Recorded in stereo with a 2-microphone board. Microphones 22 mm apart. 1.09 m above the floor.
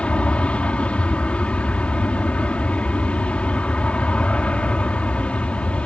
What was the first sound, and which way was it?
An aircraft, 60° left (ahead or behind).